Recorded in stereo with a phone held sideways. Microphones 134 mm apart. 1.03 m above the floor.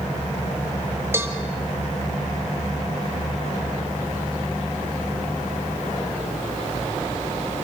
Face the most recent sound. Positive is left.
turn(degrees=-20)  # may be behind; listen again after turning